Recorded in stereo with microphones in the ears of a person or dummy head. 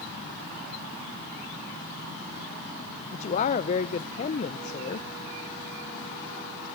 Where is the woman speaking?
40° left (ahead or behind), 0.6 m.